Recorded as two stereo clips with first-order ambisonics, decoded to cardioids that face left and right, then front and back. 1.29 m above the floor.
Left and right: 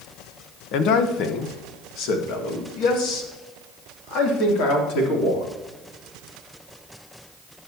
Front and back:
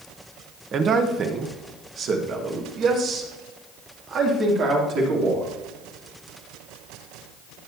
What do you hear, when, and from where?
0.7 s a man speaking: 120° left, 1.0 m; by 5.4 s 130° left, 3.5 m